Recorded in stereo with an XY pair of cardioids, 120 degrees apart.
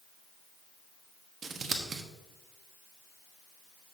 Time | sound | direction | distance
1.4 | scissors | 40° right | 1.2 m